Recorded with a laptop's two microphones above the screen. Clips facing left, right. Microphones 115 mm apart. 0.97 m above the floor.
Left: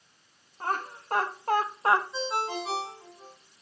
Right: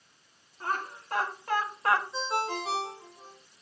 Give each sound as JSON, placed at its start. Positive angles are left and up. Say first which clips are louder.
{"t": 0.6, "sound": "laughter", "louder": "left 2 dB", "side_deg": 45, "distance_m": 1.5}
{"t": 2.1, "sound": "a ringtone", "louder": "even", "side_deg": 5, "distance_m": 3.5}